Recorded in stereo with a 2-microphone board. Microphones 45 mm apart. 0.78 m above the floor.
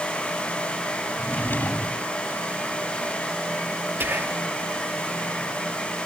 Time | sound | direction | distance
1.2 | a drawer | 45° left (ahead or behind) | ?
4.0 | whispering | 55° right (ahead or behind) | ?